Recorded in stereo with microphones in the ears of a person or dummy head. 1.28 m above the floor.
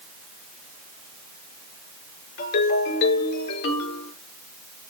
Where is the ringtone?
70° left (ahead or behind), 8 m.